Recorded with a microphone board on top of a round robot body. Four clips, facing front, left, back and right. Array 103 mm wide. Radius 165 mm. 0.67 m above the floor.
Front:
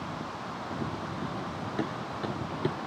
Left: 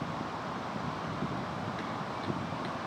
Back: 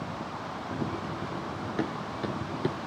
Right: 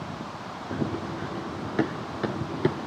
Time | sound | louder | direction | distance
0.7 | running footsteps | right 6 dB, back 3 dB | 100° right | ?